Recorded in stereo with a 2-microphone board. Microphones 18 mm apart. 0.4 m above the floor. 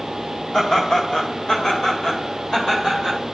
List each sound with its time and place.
0.5 s laughter: 50° left (ahead or behind), 2 m; by 3.2 s 35° left (ahead or behind), 2.0 m